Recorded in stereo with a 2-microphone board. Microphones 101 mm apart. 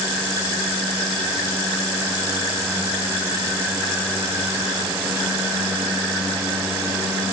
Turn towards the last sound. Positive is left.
No sound to turn to.